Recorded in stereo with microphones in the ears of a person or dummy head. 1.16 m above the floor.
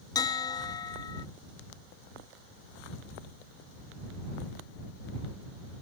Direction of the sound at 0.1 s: 20° left (ahead or behind).